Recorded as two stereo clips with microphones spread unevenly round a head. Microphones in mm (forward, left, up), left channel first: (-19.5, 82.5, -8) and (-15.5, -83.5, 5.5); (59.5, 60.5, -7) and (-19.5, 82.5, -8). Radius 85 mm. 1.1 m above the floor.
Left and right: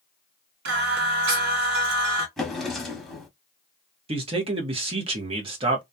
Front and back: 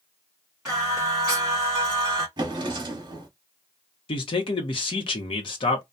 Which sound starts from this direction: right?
Singing, at 0.7 s.